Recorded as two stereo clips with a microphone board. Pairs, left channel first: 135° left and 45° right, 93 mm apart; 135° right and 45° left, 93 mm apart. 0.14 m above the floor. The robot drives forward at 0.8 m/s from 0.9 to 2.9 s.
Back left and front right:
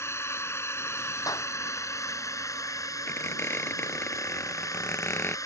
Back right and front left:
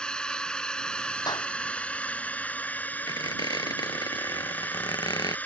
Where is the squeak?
160° right.